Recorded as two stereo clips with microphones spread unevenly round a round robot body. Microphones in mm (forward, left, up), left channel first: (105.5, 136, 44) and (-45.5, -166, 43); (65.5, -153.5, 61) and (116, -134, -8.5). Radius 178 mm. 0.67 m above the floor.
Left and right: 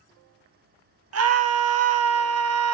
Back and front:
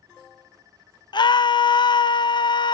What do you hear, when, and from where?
1.1 s a scream: 90° right, 0.7 m